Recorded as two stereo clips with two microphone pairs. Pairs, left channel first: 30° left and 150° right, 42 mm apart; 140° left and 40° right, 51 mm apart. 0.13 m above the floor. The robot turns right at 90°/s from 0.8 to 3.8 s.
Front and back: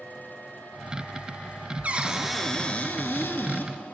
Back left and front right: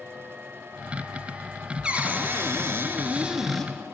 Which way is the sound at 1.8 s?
100° right.